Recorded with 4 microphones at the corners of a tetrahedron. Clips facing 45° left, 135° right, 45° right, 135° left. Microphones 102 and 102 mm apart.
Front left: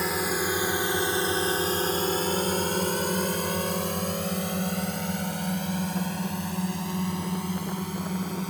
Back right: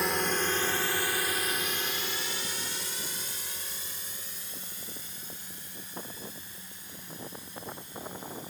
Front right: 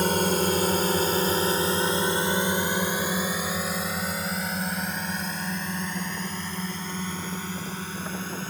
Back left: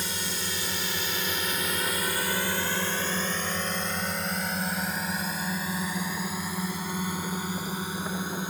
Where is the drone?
45° right; by 8.5 s 60° left.